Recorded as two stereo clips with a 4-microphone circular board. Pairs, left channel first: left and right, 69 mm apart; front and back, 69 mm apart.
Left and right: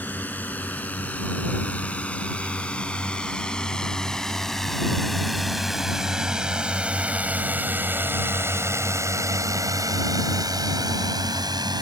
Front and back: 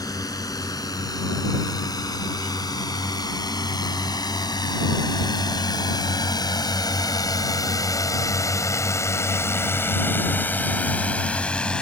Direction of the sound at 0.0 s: 25° left.